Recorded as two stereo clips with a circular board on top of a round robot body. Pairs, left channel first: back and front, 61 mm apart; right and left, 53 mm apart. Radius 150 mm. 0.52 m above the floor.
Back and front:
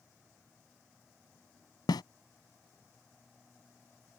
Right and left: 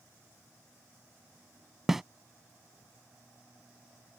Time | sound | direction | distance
1.9 | a snare drum | 175° left | ?